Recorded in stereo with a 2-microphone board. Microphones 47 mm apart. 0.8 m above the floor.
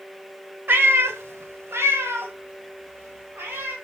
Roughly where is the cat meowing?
Right.